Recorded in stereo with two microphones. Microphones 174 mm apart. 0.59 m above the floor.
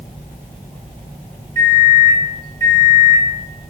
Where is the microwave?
20° left (ahead or behind), 1.6 m.